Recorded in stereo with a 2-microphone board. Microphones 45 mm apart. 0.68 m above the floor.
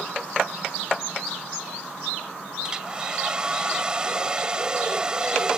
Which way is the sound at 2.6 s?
20° right (ahead or behind).